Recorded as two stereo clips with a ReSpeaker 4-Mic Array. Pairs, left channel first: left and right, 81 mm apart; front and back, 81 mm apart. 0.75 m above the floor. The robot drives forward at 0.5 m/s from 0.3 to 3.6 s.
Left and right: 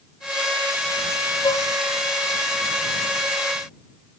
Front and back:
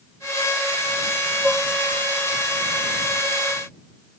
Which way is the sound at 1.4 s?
85° left.